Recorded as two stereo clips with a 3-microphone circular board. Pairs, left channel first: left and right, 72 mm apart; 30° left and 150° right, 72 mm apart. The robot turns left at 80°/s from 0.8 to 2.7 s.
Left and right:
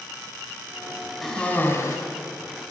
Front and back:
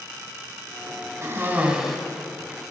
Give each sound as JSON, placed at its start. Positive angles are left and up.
{"t": 1.2, "sound": "a cough", "azimuth_deg": 180, "distance_m": 1.1}